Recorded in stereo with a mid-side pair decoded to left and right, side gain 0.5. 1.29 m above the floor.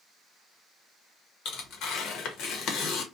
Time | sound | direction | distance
1.4 | tearing paper | 70° left | 0.9 m